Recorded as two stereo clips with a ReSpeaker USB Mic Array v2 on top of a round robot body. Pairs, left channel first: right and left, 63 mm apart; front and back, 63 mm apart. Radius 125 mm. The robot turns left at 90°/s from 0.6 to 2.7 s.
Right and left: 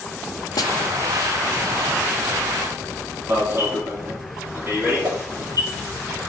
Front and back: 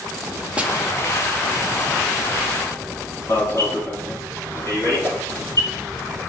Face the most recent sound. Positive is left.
turn(degrees=65)